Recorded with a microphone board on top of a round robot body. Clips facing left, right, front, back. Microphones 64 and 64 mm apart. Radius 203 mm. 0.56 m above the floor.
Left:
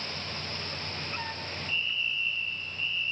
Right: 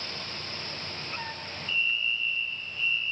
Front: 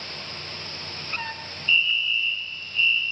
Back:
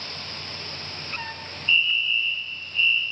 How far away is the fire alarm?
About 6.5 m.